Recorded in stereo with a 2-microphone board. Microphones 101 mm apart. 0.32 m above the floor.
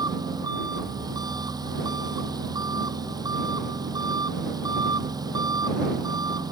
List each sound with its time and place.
0.0 s an engine running: 40° right (ahead or behind)